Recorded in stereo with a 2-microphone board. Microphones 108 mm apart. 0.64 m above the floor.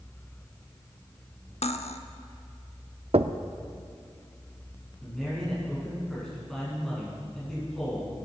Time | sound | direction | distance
1.6 | cutlery clinking | 75° left (ahead or behind) | 0.8 m
3.1 | knocking | 65° right (ahead or behind) | 0.5 m
5.0 | a man speaking | 5° left (ahead or behind) | 6 m